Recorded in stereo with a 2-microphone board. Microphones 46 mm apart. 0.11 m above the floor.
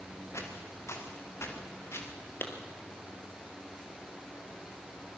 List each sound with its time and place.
0.3 s footsteps: 75° left (ahead or behind), 5 m; by 2.1 s 65° left (ahead or behind), 5 m
2.4 s a clap: 45° left (ahead or behind), 2.5 m